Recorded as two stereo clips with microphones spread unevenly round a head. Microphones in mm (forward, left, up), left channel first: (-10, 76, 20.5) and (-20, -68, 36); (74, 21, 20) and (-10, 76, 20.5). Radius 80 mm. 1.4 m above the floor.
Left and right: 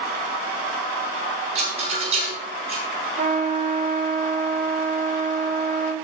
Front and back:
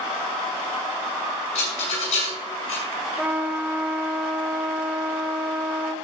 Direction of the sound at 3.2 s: 130° right.